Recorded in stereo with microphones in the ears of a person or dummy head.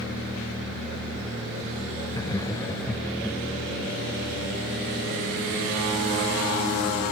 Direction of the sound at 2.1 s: 20° left (ahead or behind).